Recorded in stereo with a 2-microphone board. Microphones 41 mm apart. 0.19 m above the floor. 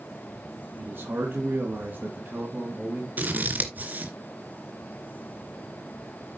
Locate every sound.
0.8 s a man speaking: 60° right (ahead or behind), 3 m; by 3.1 s 40° right (ahead or behind), 2.5 m
3.2 s scissors: 45° right (ahead or behind), 2.5 m